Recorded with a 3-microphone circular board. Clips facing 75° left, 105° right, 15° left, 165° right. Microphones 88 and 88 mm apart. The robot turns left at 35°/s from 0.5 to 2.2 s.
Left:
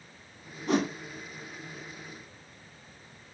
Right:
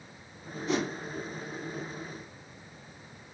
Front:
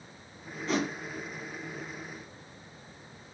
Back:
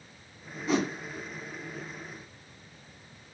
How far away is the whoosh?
About 1.5 m.